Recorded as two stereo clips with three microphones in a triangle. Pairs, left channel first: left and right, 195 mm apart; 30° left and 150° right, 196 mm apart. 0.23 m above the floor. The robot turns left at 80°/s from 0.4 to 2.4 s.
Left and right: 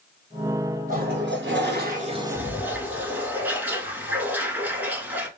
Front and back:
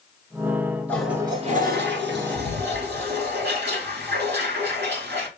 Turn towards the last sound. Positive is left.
turn(degrees=-170)